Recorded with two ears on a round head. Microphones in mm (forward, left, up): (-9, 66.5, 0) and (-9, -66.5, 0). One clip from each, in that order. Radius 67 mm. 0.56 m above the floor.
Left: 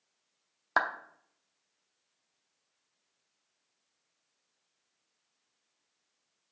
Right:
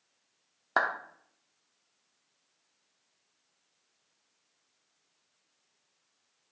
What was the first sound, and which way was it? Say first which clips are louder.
A clap: right 1 dB; 30° left (ahead or behind).